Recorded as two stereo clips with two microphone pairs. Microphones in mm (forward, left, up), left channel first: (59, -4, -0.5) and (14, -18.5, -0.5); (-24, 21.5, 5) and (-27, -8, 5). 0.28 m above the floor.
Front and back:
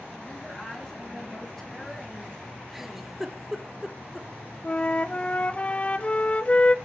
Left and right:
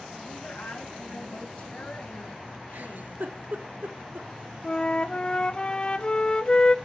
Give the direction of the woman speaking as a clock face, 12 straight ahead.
9 o'clock.